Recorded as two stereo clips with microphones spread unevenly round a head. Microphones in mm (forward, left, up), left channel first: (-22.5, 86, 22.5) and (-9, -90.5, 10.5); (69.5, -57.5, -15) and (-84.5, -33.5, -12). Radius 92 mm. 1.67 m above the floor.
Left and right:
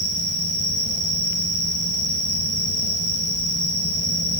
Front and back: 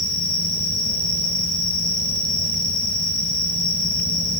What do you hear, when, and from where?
0.0 s an insect: 155° right, 7 m